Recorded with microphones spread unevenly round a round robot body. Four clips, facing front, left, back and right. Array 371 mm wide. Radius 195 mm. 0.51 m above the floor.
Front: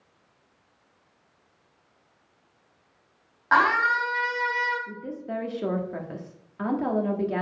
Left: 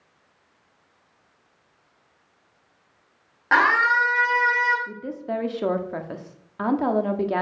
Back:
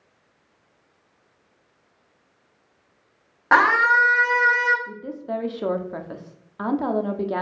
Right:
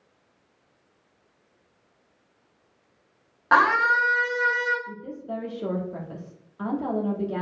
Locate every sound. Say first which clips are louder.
3.5 s a scream: even, back 4 dB; 175° right, 2 m
4.9 s a woman speaking: left 4 dB, back 4 dB; 105° left, 1.5 m